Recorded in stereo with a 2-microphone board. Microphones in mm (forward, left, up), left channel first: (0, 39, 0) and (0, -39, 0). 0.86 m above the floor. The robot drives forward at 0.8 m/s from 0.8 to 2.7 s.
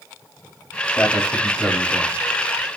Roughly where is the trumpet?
I don't hear a trumpet.